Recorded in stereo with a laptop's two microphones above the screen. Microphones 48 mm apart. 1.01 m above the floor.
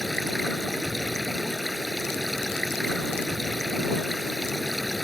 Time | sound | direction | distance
0.0 | running water | 5° left (ahead or behind) | ?